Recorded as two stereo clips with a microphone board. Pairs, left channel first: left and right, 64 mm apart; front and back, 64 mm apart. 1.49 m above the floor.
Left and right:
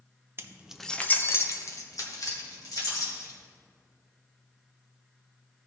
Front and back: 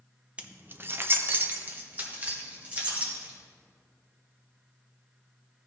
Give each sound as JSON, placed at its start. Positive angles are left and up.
{"t": 0.4, "sound": "keys jangling", "azimuth_deg": -120, "distance_m": 0.6}